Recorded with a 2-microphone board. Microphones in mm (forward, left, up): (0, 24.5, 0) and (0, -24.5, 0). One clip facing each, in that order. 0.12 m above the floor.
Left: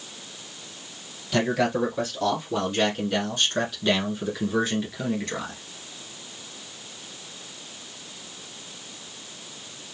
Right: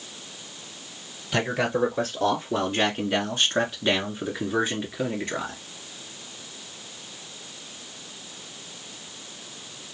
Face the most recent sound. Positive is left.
turn(degrees=-15)  # may be behind; listen again after turning